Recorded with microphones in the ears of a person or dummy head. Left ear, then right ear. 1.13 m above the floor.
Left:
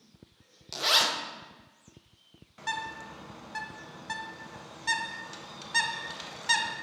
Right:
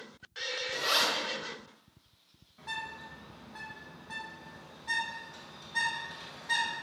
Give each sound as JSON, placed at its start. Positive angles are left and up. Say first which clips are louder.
{"t": 0.7, "sound": "a zipper", "louder": "left 4 dB", "side_deg": 30, "distance_m": 0.8}
{"t": 2.6, "sound": "a bird", "louder": "left 5 dB", "side_deg": 75, "distance_m": 0.7}